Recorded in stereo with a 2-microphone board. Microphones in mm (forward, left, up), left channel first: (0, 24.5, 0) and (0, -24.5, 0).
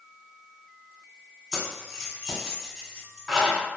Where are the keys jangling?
10° left (ahead or behind), 1.6 m.